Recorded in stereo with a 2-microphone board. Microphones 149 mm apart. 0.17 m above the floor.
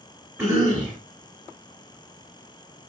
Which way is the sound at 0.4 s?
5° right (ahead or behind).